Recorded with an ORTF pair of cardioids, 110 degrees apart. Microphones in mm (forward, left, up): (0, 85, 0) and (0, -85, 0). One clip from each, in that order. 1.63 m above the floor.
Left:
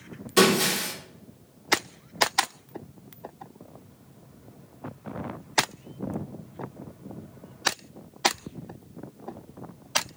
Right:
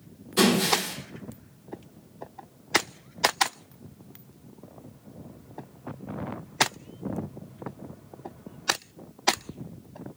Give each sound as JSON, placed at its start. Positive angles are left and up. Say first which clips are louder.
{"t": 0.4, "sound": "breaking glass", "louder": "left 2 dB", "azimuth_deg": 60, "distance_m": 3.0}